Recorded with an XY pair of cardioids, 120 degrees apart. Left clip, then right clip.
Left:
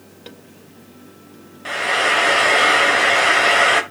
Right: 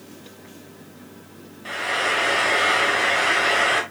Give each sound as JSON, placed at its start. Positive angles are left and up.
{"t": 1.6, "sound": "frying", "azimuth_deg": 35, "distance_m": 1.3}